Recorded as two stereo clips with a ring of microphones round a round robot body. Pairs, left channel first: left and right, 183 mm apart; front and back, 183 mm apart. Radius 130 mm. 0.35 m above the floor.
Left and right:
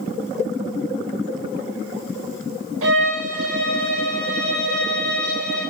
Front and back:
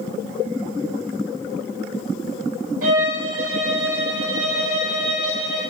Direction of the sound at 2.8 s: 120° right.